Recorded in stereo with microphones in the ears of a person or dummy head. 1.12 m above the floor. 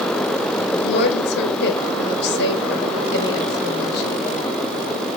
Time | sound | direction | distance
0.7 | a woman speaking | 65° left (ahead or behind) | 2.5 m